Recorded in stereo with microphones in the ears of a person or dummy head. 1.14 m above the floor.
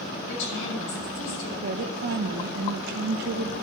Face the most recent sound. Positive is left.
turn(degrees=-45)  # may be behind; listen again after turning